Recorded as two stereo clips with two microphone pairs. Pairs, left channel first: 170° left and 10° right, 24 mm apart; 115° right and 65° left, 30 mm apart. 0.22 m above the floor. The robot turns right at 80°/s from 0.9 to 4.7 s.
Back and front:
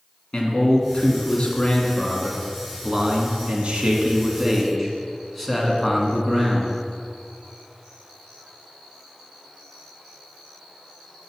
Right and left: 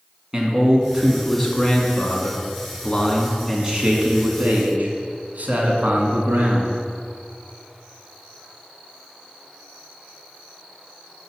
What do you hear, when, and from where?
0.3 s a man speaking: 140° left, 1.7 m; by 6.7 s 85° left, 1.7 m